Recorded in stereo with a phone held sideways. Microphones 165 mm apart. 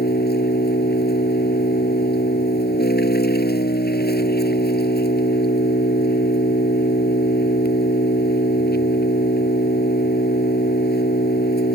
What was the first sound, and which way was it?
An engine running, 75° left (ahead or behind).